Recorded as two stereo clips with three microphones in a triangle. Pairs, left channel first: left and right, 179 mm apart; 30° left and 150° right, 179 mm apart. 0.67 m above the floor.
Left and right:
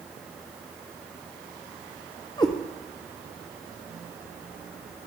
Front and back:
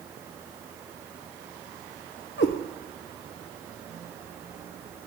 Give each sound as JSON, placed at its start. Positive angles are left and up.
{"t": 2.4, "sound": "a cat meowing", "azimuth_deg": 25, "distance_m": 0.6}